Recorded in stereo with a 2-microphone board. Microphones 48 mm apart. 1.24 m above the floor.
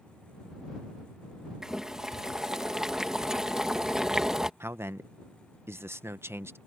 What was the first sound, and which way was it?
Boiling, 10° right (ahead or behind).